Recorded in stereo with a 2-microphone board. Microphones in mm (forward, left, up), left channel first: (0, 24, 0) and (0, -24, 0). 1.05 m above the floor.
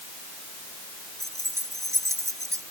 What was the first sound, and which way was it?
Keys jangling, 80° right.